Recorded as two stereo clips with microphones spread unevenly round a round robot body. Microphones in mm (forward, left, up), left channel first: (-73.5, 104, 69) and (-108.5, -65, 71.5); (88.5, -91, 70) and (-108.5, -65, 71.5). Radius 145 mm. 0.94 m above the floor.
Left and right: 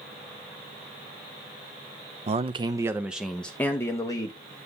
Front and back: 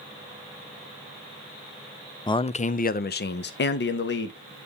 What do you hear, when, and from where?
2.3 s a man speaking: 70° right, 0.7 m; by 4.7 s 15° left, 1.5 m